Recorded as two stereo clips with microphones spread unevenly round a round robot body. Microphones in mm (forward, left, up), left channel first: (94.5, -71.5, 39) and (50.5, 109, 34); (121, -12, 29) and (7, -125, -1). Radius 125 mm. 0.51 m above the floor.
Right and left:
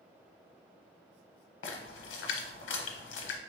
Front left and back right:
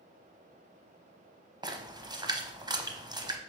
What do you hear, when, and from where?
1.6 s a splash: 65° right, 0.8 m